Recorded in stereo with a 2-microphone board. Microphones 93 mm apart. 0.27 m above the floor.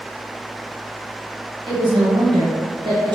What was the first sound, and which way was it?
A woman speaking, 50° right (ahead or behind).